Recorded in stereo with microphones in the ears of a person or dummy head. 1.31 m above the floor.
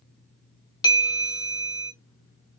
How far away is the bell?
About 0.8 m.